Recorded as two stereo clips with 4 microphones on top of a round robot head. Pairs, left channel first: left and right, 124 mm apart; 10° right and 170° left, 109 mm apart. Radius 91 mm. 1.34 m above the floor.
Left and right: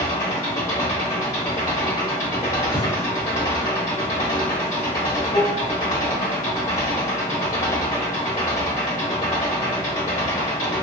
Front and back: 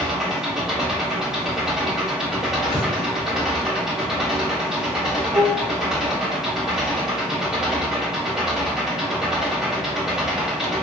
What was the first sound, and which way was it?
An engine running, 85° left.